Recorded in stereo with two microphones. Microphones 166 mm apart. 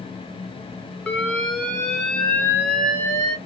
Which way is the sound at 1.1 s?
5° left (ahead or behind).